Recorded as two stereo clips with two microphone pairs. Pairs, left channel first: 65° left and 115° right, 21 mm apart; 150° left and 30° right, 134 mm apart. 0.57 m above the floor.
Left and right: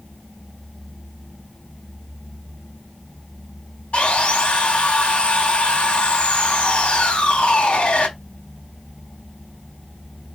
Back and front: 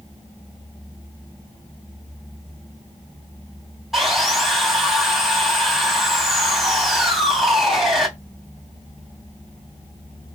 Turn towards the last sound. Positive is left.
turn(degrees=55)